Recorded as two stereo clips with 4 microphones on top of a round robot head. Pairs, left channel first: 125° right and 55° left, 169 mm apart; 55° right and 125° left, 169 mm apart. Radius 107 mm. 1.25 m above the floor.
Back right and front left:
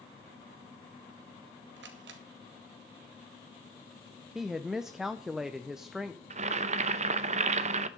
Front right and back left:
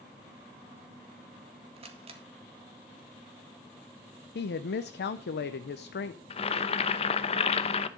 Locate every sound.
1.8 s a camera shutter: 70° left, 2.0 m
4.3 s a woman speaking: 35° right, 0.8 m
6.3 s boiling: 5° left, 0.7 m